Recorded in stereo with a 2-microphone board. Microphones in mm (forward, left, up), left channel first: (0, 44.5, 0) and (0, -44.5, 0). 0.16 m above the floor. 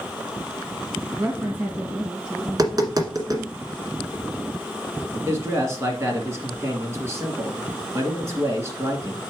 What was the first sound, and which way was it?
A woman speaking, 25° right (ahead or behind).